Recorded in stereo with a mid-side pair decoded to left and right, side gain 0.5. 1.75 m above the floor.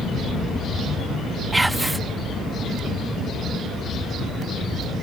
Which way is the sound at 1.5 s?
10° right.